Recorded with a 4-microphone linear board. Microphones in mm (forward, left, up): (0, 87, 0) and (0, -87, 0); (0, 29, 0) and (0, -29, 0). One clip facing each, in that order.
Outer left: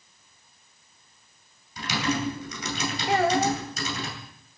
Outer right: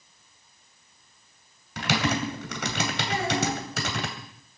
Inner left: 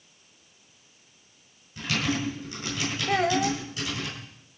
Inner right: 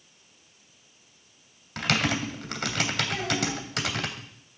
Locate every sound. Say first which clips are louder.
1.8 s typing on a keyboard: outer right 1 dB, inner right 2 dB; 65° right (ahead or behind), 3 m
3.1 s a child speaking: outer left 7 dB, inner left 5 dB; 60° left (ahead or behind), 1.8 m